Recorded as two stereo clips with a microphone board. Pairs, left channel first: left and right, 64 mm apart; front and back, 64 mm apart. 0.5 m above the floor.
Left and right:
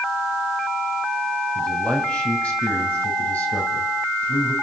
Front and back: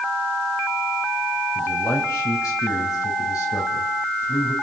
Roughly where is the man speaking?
Ahead.